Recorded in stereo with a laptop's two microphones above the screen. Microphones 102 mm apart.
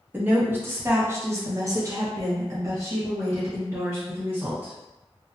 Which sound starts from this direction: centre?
A woman speaking, at 0.1 s.